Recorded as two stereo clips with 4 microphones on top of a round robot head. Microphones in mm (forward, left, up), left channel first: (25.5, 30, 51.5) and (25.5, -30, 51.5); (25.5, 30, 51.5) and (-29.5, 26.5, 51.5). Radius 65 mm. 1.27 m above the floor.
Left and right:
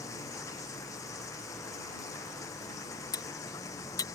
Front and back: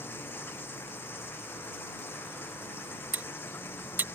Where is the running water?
55° left.